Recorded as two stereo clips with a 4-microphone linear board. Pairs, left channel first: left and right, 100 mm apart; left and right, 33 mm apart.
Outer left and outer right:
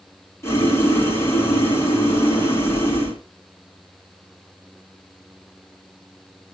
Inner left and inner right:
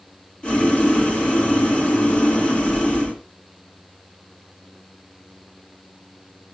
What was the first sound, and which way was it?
Boiling, 25° left (ahead or behind).